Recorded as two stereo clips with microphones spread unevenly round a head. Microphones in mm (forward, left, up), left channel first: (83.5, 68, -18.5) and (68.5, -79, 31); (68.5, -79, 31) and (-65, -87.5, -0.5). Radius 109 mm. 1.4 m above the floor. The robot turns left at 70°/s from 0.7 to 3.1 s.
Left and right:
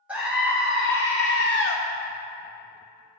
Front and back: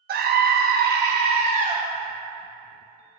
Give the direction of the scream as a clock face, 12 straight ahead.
6 o'clock.